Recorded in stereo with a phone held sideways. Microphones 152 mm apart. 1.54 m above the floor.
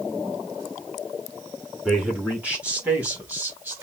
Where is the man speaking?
5° right (ahead or behind), 4 m; by 3.8 s 15° right (ahead or behind), 3 m.